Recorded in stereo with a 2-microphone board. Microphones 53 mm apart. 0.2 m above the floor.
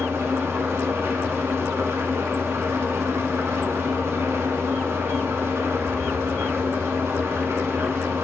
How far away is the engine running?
About 0.8 m.